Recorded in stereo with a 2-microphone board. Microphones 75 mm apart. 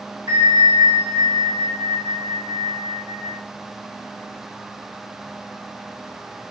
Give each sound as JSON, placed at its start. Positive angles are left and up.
{"t": 0.3, "sound": "a bell", "side_deg": -40, "distance_m": 2.5}